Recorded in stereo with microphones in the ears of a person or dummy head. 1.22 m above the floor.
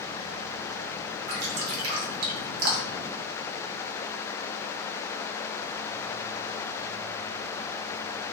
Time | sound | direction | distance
1.3 | dripping | 85° right | 0.8 m